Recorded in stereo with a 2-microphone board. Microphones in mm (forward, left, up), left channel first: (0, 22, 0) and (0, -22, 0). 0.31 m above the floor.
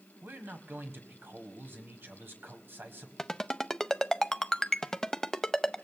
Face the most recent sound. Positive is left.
turn(degrees=15)  # may be behind; listen again after turning